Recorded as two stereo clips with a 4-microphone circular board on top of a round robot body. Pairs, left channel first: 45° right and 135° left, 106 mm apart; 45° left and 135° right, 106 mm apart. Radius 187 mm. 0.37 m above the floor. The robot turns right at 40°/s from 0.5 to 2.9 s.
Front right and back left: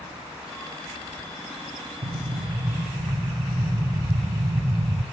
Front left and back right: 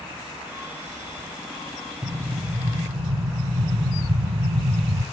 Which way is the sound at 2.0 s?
165° left.